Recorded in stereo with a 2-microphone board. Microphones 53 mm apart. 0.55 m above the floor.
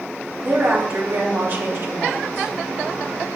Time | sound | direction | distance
0.4 | a woman speaking | 50° right (ahead or behind) | 3.5 m